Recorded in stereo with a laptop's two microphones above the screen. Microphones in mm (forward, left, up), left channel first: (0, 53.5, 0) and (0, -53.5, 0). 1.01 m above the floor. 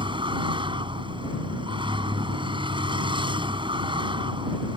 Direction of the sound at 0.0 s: 50° right (ahead or behind).